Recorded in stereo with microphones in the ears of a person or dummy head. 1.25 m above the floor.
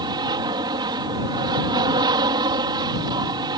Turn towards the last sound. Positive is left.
turn(degrees=-20)  # may be behind; listen again after turning